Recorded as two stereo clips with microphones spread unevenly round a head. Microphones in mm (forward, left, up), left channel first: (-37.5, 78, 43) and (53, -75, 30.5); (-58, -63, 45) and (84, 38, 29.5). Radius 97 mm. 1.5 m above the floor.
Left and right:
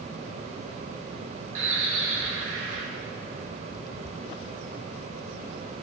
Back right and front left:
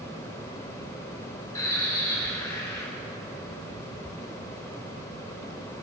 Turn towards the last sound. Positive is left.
turn(degrees=-70)